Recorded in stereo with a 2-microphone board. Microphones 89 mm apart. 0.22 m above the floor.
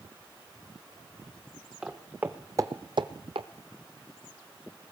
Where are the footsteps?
10° right (ahead or behind), 1.2 m; by 3.5 s 80° right, 0.7 m.